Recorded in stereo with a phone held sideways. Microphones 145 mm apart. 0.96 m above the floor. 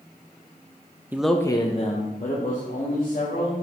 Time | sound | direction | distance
1.1 | a man speaking | 15° right (ahead or behind) | 0.6 m